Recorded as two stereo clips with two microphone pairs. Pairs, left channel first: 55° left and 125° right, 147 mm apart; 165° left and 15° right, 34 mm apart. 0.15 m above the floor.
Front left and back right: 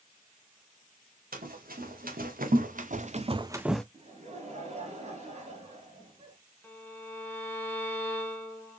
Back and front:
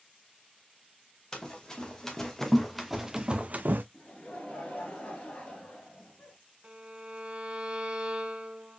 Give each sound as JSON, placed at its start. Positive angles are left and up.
{"t": 1.3, "sound": "running footsteps", "azimuth_deg": -125, "distance_m": 1.7}
{"t": 3.9, "sound": "laughter", "azimuth_deg": -155, "distance_m": 2.0}
{"t": 6.6, "sound": "a violin", "azimuth_deg": 0, "distance_m": 1.0}